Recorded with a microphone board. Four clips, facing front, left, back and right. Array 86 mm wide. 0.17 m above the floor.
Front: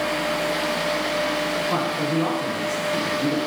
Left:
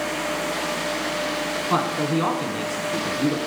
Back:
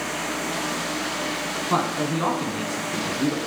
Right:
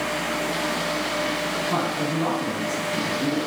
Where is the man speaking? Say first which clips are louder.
Left 5 dB, back 3 dB; 120° left, 1.2 m.